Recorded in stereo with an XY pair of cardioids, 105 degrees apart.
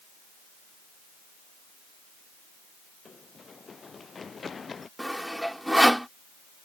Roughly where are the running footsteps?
Ahead left.